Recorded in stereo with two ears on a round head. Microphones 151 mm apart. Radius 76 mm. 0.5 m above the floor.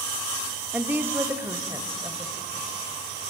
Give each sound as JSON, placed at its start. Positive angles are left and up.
{"t": 0.7, "sound": "a woman speaking", "side_deg": -10, "distance_m": 0.9}